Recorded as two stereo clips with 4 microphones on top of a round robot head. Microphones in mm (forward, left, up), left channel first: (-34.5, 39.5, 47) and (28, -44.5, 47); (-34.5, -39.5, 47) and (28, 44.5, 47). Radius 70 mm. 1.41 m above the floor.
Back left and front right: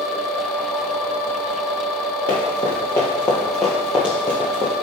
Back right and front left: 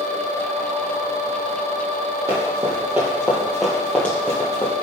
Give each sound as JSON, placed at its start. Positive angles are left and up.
{"t": 2.3, "sound": "running footsteps", "azimuth_deg": 95, "distance_m": 1.7}